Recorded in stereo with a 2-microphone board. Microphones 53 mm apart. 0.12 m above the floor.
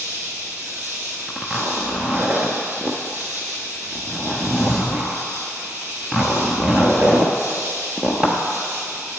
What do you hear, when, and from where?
0.0 s an insect: 45° right (ahead or behind), 2 m
1.3 s a zipper: 25° right (ahead or behind), 1.0 m